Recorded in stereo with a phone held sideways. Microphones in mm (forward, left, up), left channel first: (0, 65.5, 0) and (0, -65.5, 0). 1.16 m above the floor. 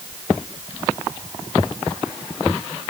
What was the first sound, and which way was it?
Only background noise.